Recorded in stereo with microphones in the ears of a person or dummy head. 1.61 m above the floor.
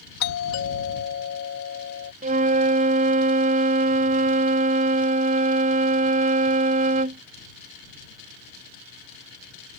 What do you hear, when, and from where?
0.2 s a doorbell: 75° left (ahead or behind)
2.2 s a flute: 40° right (ahead or behind)